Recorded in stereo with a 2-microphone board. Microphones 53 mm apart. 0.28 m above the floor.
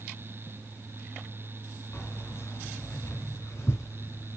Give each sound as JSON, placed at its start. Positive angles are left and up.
{"t": 1.9, "sound": "keys jangling", "side_deg": 50, "distance_m": 2.5}